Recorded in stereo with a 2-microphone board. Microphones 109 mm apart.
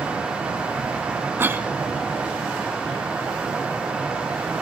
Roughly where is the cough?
Centre.